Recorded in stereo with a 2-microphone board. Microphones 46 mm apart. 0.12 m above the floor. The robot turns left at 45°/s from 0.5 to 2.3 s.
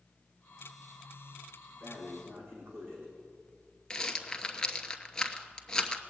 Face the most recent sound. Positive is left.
turn(degrees=15)  # may be behind; listen again after turning